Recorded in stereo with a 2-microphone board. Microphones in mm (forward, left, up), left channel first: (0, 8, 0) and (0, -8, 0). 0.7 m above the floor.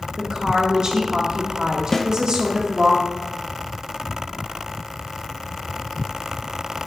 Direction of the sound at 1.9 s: 20° left (ahead or behind).